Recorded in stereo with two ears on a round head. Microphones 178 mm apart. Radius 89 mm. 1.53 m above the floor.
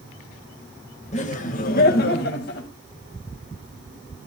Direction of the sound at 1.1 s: 40° left (ahead or behind).